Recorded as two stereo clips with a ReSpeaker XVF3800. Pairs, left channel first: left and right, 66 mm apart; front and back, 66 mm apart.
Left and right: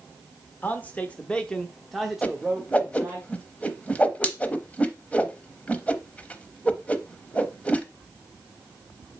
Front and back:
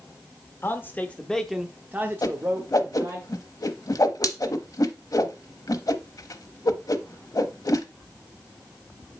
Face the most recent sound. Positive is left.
turn(degrees=20)